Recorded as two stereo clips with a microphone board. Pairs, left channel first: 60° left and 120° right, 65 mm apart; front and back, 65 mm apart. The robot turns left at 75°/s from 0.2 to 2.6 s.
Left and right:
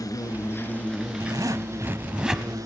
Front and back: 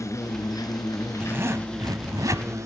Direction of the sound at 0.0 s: 35° left.